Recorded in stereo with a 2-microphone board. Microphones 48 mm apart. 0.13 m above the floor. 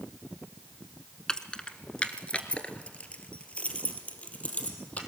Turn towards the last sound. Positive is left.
turn(degrees=30)  # may be behind; listen again after turning